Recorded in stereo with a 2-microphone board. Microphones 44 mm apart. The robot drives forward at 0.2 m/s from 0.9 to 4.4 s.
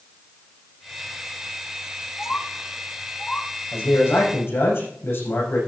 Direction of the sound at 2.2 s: 40° left (ahead or behind).